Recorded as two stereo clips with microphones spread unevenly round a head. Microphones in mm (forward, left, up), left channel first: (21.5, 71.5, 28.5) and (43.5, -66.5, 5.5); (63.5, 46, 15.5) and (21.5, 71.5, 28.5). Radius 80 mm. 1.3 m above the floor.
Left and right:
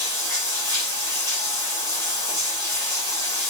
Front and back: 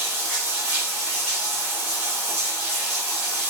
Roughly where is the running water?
Behind left.